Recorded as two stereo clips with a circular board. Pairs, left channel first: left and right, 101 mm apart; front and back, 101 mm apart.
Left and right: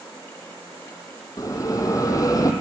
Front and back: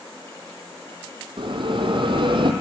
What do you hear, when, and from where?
1.4 s a bell: 145° left, 2 m